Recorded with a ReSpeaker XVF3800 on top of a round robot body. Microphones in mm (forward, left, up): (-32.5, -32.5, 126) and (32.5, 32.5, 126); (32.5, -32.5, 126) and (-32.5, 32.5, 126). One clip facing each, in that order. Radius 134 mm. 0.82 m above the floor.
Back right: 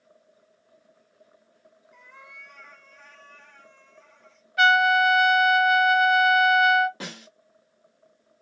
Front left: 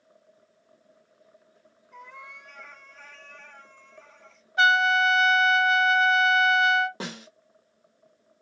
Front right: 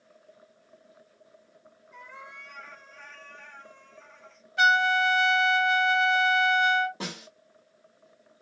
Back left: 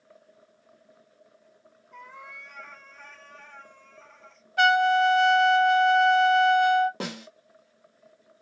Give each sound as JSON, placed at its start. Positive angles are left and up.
{"t": 1.9, "sound": "a cat meowing", "azimuth_deg": 80, "distance_m": 1.1}
{"t": 4.6, "sound": "a trumpet", "azimuth_deg": 105, "distance_m": 0.7}
{"t": 7.0, "sound": "a snare drum", "azimuth_deg": 105, "distance_m": 0.7}